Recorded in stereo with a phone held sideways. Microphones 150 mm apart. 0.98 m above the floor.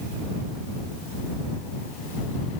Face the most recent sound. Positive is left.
No sound to turn to.